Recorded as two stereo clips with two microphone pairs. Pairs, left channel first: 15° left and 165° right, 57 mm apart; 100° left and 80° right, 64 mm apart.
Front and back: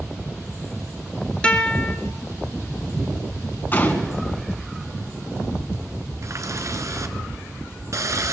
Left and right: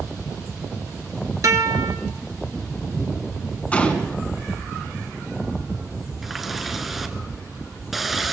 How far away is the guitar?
About 2 m.